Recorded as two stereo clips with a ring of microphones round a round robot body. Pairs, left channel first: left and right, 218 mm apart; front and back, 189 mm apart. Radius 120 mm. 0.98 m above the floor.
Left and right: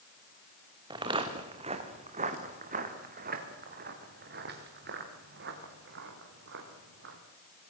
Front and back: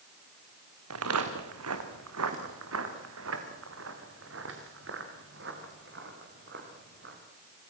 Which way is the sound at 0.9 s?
160° right.